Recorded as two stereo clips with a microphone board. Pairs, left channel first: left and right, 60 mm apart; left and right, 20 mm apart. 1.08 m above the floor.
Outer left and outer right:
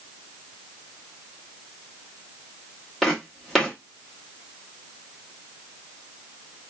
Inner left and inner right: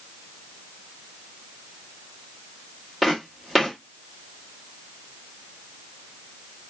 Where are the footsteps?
Centre (ahead or behind), 2.0 m.